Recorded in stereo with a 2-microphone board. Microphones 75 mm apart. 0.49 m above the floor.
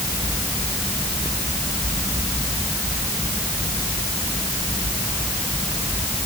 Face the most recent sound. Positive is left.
No sound to turn to.